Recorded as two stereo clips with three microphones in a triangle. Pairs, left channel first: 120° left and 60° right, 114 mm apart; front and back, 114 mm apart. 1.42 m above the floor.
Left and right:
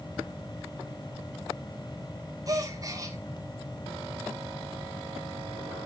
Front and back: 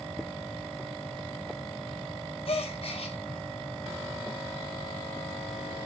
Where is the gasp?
10° right, 1.8 m.